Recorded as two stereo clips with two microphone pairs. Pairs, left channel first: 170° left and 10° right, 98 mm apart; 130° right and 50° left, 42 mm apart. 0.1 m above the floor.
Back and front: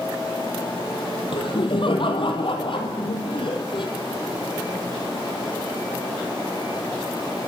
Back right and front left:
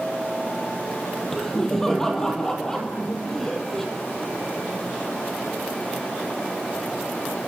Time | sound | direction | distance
1.3 | laughter | 155° left | 3 m